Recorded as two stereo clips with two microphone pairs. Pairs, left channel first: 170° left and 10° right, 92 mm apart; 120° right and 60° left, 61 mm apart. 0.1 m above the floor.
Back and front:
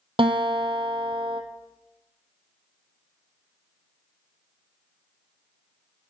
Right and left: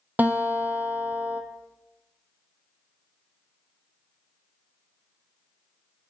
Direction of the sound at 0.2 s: Straight ahead.